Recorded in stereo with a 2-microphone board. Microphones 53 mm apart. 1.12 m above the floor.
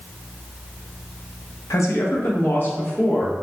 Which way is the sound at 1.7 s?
80° left.